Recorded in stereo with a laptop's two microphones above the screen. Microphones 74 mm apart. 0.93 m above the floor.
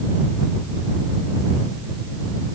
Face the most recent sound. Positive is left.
No sound to turn to.